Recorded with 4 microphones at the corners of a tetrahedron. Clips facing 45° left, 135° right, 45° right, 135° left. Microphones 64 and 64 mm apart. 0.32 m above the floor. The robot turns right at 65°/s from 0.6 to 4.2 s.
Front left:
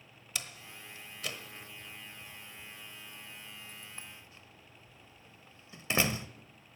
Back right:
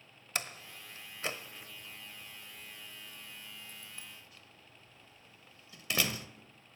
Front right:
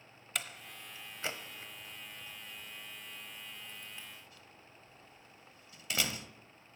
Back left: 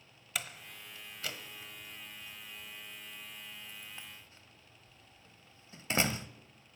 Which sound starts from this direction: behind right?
A door slam, at 0.3 s.